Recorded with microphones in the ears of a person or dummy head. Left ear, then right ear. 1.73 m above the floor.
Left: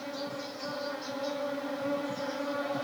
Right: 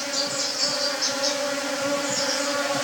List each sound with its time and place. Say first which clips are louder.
0.0 s an insect: right 11 dB; 65° right (ahead or behind)